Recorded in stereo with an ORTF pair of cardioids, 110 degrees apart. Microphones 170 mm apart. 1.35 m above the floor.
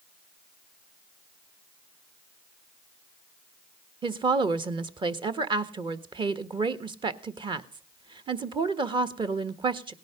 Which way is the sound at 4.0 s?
30° right.